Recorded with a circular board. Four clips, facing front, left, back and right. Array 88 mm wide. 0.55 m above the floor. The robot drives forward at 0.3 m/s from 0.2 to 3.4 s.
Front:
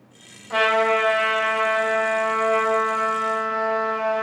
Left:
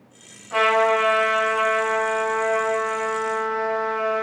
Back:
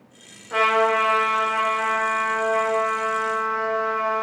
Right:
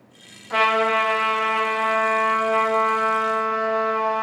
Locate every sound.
0.5 s a trumpet: 50° right, 2.0 m; by 4.2 s 75° right, 1.6 m